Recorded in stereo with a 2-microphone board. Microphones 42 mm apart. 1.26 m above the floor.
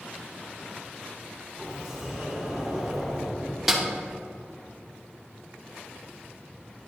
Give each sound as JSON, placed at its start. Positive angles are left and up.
{"t": 1.6, "sound": "a sliding door", "side_deg": -5, "distance_m": 2.5}
{"t": 3.7, "sound": "a snare drum", "side_deg": -5, "distance_m": 0.9}